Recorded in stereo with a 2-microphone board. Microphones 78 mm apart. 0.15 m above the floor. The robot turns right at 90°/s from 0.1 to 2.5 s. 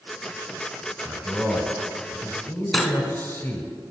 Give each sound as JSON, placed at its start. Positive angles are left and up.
{"t": 1.1, "sound": "a man speaking", "side_deg": -15, "distance_m": 1.3}
{"t": 2.7, "sound": "cutlery clinking", "side_deg": 0, "distance_m": 0.8}